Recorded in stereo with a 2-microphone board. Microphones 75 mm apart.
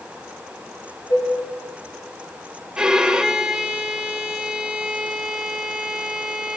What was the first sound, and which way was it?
Dishes clattering, 75° left (ahead or behind).